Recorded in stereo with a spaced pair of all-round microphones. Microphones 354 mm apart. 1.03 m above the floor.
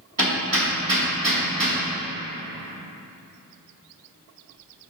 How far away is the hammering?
About 2.5 m.